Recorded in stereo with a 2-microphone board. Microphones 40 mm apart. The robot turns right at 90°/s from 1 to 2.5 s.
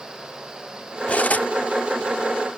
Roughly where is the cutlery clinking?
Ahead left.